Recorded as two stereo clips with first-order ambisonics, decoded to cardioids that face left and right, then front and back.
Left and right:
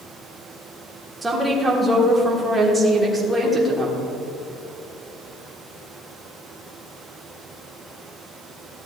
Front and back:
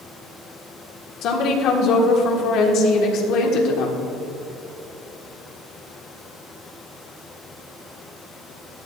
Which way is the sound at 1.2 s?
15° right.